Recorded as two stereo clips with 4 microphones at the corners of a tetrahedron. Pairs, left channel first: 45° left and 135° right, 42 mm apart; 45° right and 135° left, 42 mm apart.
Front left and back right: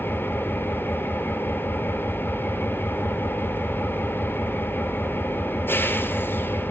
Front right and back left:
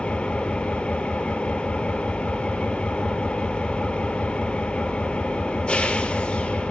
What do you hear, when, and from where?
0.0 s an engine running: 25° left, 1.3 m